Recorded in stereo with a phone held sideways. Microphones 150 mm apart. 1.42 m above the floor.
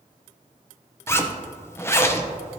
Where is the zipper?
15° left (ahead or behind), 0.6 m.